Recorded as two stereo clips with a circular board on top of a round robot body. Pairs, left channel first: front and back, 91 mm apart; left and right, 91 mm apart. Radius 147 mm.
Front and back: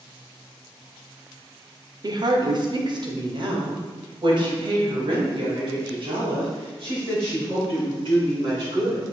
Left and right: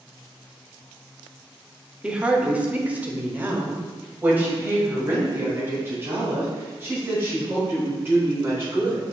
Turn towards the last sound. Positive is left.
turn(degrees=-155)